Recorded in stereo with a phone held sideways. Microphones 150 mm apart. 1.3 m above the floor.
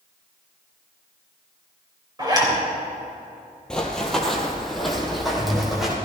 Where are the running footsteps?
5° left (ahead or behind), 1.6 m; by 6.0 s centre (ahead or behind), 3 m.